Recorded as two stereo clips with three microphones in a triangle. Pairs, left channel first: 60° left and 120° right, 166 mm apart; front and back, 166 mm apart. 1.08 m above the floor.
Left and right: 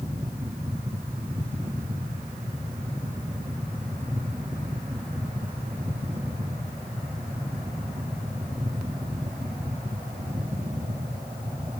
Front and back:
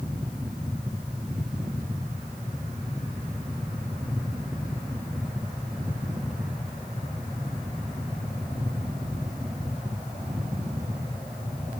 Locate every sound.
Only background noise.